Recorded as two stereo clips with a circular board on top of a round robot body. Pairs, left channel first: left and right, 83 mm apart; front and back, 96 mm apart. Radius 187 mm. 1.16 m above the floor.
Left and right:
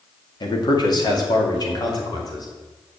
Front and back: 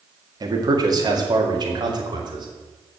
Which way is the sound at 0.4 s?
130° left.